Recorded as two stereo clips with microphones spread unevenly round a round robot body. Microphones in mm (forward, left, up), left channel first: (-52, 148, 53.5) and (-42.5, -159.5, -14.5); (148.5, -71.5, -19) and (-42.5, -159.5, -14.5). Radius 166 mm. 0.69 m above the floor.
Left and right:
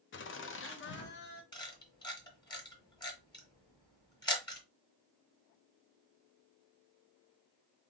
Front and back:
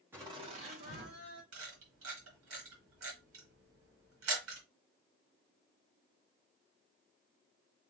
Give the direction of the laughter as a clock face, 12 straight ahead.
8 o'clock.